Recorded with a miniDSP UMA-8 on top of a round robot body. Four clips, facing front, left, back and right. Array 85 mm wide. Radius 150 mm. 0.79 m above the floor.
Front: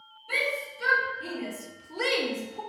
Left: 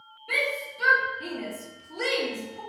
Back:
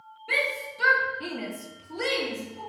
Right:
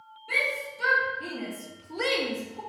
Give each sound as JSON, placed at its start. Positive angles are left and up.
{"t": 0.3, "sound": "a shout", "azimuth_deg": 165, "distance_m": 1.6}